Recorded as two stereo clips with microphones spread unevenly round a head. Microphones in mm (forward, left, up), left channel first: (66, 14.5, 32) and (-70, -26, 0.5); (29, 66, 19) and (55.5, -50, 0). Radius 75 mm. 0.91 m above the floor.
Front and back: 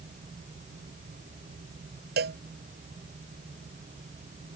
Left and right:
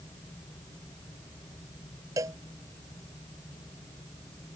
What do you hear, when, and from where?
2.2 s a cowbell: 150° right